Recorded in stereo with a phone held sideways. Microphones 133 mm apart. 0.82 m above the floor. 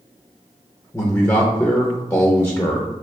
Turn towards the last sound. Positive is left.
turn(degrees=20)  # may be behind; listen again after turning